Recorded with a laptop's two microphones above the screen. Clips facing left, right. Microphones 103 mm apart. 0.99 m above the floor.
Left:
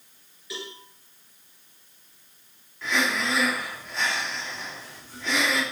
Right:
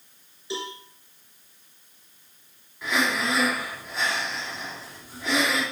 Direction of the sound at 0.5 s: 30° right (ahead or behind).